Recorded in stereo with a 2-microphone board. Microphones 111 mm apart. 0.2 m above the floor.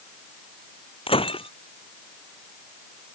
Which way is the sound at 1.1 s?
55° left (ahead or behind).